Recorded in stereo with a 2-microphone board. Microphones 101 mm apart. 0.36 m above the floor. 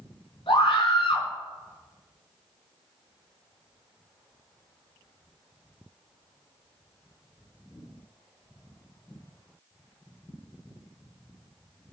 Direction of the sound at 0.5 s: 65° left (ahead or behind).